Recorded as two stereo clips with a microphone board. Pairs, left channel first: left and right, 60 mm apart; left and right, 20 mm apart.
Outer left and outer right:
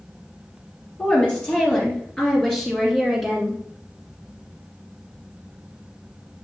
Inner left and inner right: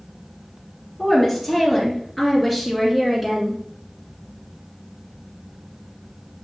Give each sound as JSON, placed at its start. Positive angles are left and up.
{"t": 1.0, "sound": "a woman speaking", "side_deg": 20, "distance_m": 4.0}